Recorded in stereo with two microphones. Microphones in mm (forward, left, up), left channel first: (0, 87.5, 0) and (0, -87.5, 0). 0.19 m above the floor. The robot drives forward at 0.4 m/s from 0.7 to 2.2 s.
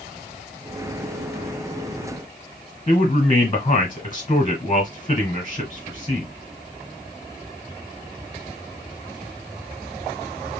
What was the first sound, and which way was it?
A man speaking, 30° left (ahead or behind).